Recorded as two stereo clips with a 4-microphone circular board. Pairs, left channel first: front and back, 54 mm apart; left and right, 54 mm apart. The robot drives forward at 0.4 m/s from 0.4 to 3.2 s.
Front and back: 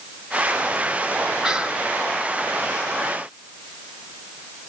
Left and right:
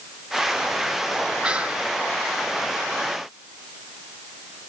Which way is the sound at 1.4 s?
120° right.